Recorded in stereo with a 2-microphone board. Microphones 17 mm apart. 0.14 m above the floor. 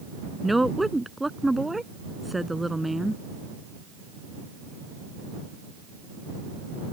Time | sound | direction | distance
0.4 | a woman speaking | 5° right (ahead or behind) | ?